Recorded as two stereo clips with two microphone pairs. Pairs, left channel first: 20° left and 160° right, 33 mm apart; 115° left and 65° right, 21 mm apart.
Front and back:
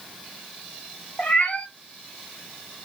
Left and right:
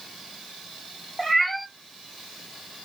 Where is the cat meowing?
30° left, 1.6 m.